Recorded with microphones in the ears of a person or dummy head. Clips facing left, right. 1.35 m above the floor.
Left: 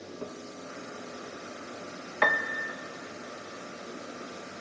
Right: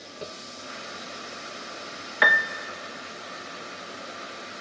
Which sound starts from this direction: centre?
A piano, at 2.2 s.